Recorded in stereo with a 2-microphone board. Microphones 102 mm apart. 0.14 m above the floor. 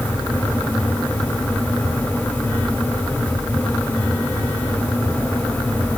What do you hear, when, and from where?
Only background noise.